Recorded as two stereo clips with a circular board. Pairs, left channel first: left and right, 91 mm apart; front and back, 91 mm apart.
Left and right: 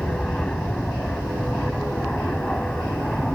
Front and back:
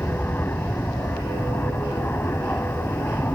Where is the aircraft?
25° left.